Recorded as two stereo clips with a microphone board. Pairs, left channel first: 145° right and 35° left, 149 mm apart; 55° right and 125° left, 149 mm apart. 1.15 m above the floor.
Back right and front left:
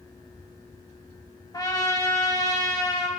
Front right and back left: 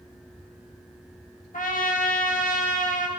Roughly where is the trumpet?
Right.